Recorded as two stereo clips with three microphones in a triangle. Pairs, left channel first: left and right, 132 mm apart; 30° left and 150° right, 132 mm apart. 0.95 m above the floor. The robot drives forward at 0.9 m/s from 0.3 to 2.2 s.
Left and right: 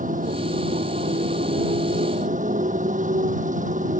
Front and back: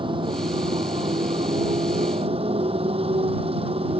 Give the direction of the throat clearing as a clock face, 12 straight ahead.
No throat clearing in this recording.